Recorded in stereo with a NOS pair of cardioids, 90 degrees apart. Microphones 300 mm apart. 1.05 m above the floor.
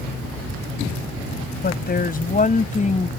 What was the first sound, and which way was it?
A woman speaking, 35° left.